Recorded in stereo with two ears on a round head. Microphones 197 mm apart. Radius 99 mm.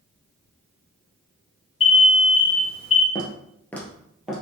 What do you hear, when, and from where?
1.8 s an alarm: 30° left (ahead or behind), 1.1 m
3.1 s footsteps: 20° left (ahead or behind), 1.1 m; by 4.4 s 5° right (ahead or behind), 1.5 m